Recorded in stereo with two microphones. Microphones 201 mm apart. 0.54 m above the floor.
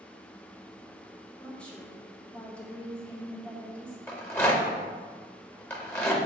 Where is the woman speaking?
5° left (ahead or behind), 0.9 m.